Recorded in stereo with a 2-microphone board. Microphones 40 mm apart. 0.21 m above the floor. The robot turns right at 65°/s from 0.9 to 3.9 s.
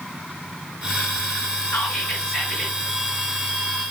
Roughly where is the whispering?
Behind left.